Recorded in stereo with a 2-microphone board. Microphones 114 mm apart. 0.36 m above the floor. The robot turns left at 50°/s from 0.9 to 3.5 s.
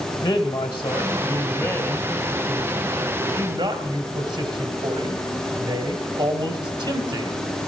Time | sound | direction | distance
0.2 | a man speaking | 55° left | 1.7 m